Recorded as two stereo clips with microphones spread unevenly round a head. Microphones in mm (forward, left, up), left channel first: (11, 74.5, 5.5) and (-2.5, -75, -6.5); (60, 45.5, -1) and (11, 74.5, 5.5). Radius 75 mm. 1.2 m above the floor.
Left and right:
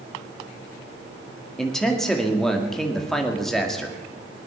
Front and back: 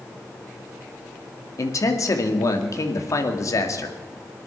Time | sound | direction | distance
1.6 | a man speaking | 5° right | 2 m